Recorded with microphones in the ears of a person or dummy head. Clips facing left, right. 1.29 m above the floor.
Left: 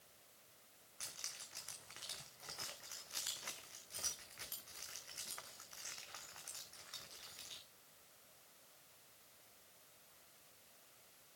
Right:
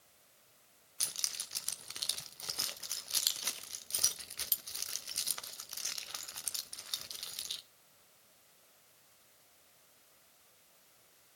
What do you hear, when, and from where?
1.0 s keys jangling: 55° right (ahead or behind), 0.6 m